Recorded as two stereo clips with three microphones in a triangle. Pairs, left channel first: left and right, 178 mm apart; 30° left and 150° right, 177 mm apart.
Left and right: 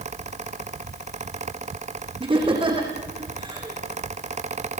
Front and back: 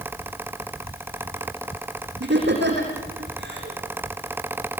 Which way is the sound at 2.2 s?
150° right.